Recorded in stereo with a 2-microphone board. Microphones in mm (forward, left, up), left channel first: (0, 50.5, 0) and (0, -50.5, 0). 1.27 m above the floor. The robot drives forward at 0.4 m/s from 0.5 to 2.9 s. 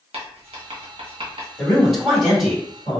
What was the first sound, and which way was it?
Writing, 80° right.